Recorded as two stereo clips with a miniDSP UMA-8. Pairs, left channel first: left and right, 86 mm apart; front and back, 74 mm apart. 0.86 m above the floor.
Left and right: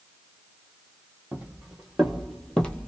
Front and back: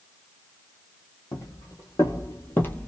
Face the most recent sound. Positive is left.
turn(degrees=40)